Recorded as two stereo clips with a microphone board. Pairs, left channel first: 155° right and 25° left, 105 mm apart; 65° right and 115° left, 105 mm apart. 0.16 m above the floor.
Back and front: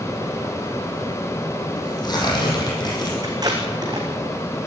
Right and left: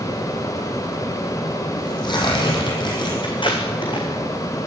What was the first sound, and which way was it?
Tearing paper, 110° right.